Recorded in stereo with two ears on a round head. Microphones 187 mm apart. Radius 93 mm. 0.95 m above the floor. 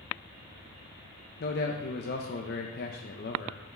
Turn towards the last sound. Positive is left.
turn(degrees=50)  # may be behind; listen again after turning